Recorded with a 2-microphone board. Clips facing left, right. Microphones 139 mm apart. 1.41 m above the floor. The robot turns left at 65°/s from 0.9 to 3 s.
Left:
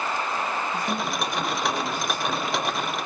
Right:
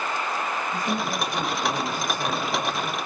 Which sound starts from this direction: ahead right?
A man speaking, at 0.7 s.